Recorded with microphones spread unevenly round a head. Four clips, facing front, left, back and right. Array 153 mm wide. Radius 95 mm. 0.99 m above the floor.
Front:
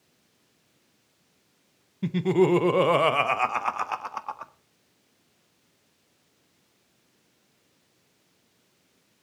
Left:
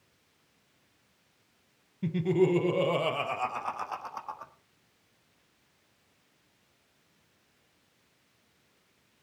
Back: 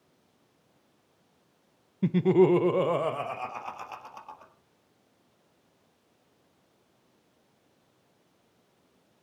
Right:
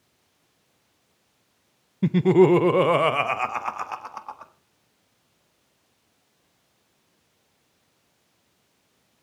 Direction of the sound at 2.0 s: 80° right.